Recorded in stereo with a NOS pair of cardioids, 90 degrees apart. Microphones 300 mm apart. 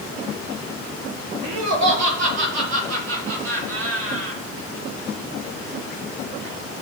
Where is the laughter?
70° right, 4.5 m; by 4.4 s 45° right, 8 m.